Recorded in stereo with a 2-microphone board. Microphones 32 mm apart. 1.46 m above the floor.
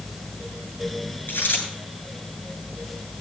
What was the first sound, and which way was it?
A dropped coin, 75° left (ahead or behind).